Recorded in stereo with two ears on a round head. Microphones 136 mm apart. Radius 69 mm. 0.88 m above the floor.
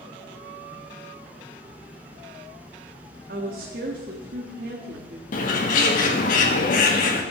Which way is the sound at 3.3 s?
65° right (ahead or behind).